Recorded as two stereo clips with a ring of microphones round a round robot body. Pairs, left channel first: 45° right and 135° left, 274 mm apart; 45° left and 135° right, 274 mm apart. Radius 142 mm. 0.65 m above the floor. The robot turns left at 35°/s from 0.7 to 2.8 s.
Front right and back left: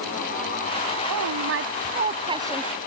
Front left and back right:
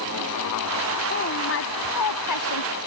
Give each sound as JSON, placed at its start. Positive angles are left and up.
{"t": 1.1, "sound": "a woman speaking", "azimuth_deg": 105}